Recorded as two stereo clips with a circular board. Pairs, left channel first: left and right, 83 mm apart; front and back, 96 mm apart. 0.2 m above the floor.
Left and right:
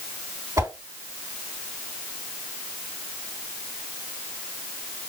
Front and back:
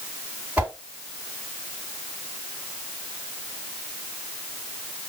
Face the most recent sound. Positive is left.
turn(degrees=-110)